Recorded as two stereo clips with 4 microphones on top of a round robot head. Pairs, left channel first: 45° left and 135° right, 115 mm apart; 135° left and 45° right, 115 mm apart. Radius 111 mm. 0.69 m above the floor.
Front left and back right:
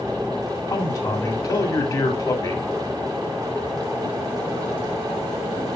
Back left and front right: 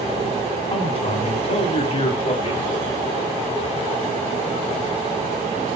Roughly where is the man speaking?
Left.